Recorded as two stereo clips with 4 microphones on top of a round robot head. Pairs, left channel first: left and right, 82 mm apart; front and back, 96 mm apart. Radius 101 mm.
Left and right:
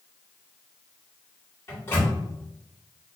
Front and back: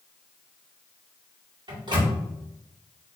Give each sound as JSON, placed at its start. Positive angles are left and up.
{"t": 1.7, "sound": "a microwave", "azimuth_deg": 150, "distance_m": 1.9}